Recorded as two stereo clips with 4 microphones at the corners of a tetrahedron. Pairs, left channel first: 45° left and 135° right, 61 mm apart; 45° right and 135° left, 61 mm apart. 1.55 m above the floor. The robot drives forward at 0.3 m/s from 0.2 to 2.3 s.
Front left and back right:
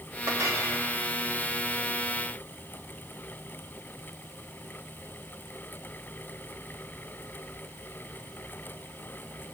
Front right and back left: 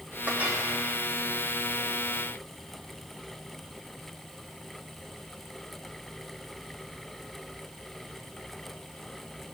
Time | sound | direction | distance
0.3 | a clink | 165° right | 3 m